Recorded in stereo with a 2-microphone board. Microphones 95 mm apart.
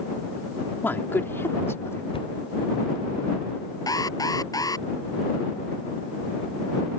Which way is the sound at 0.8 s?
20° left (ahead or behind).